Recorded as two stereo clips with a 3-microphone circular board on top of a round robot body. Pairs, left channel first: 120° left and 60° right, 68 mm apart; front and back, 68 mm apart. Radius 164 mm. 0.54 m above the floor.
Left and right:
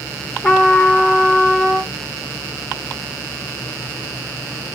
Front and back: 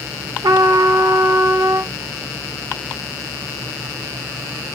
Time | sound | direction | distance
0.4 | a trumpet | 165° right | 0.9 m